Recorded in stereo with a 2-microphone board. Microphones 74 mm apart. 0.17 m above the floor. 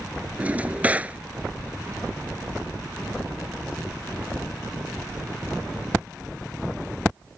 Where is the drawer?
20° right (ahead or behind).